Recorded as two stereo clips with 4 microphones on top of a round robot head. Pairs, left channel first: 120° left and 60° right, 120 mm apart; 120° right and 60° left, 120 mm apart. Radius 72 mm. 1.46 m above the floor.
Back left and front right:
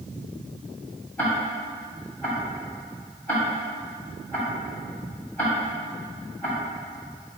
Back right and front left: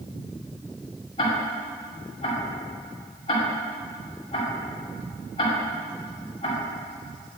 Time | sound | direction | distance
1.2 | ticking | 165° right | 2 m